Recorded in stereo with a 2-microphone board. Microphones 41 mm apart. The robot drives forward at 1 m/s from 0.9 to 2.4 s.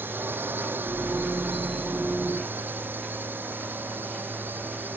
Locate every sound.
0.0 s a drone: 60° right (ahead or behind)